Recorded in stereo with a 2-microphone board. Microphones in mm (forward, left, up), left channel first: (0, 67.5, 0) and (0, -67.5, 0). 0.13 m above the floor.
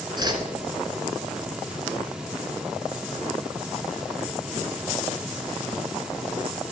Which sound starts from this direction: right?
A whoosh, at 0.2 s.